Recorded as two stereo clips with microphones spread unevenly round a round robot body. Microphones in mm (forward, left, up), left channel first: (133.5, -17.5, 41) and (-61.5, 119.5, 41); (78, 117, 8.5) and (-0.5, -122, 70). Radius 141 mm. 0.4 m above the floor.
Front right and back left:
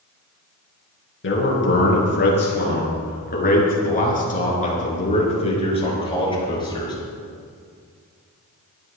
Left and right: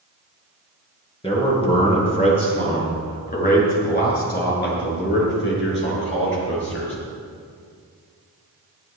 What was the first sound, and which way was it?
A man speaking, straight ahead.